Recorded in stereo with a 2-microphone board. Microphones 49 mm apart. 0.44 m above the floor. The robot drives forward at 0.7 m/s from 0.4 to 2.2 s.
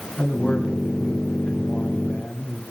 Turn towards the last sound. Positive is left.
turn(degrees=30)  # may be behind; listen again after turning